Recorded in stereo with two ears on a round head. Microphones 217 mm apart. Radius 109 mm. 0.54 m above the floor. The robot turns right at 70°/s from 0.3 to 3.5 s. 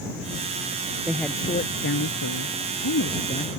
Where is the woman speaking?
10° right; by 3.6 s 165° left.